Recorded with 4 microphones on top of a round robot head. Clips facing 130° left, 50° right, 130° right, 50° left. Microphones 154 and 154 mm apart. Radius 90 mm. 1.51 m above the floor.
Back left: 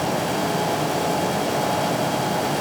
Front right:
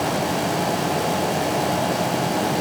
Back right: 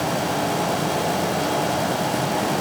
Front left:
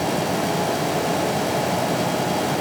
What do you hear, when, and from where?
Only background noise.